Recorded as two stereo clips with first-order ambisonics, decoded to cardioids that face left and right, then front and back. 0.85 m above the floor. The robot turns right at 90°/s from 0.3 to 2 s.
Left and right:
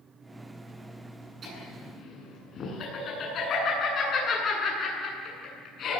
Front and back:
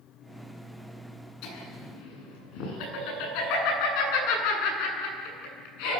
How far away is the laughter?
About 9.5 m.